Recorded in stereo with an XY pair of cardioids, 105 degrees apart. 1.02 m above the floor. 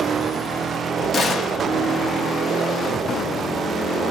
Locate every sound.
1.1 s a gunshot: 45° left, 0.8 m